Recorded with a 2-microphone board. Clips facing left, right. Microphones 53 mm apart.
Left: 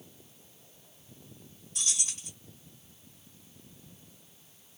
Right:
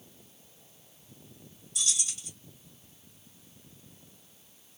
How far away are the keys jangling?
About 2 m.